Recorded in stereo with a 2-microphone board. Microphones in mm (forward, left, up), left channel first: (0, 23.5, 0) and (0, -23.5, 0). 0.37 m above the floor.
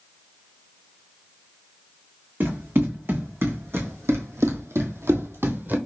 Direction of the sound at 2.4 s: 50° right (ahead or behind).